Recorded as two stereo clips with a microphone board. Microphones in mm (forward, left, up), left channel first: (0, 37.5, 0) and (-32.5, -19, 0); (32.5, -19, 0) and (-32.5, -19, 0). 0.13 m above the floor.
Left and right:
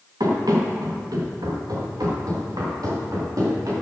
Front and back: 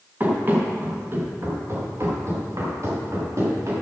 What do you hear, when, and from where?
0.2 s running footsteps: 120° right, 5.5 m; by 3.7 s 145° right, 9 m